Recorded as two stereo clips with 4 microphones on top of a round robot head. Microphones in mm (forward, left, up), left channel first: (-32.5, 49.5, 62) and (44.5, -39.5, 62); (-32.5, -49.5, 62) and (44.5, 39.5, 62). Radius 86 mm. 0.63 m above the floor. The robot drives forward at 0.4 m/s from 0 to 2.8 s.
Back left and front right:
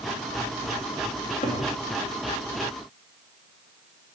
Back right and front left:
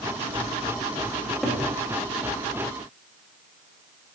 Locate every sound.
1.2 s a cupboard door: 130° left, 0.7 m; by 1.6 s 145° left, 0.8 m